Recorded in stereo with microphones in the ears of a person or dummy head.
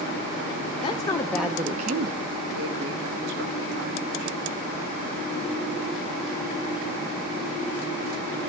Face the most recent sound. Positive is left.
turn(degrees=-70)  # may be behind; listen again after turning